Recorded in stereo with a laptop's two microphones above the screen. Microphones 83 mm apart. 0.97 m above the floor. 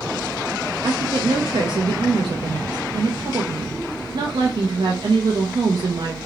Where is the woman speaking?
60° right (ahead or behind), 0.5 m.